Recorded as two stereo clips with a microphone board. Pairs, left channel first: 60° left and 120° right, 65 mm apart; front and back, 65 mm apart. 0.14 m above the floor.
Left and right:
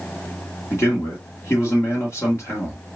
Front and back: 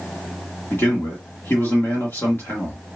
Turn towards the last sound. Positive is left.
turn(degrees=40)